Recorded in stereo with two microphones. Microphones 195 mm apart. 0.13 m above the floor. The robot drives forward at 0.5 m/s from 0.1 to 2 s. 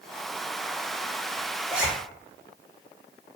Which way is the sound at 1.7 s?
5° right (ahead or behind).